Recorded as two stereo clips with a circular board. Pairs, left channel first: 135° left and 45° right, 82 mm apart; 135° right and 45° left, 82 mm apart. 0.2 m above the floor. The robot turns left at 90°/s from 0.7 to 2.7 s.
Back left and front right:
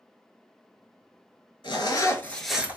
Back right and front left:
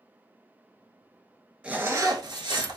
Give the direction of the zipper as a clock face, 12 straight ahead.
8 o'clock.